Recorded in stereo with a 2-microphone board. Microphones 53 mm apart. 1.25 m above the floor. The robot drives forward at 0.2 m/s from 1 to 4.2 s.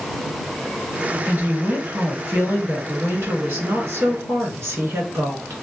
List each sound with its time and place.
1.3 s a woman speaking: 45° right (ahead or behind), 1.6 m; by 5.6 s 60° right (ahead or behind), 1.3 m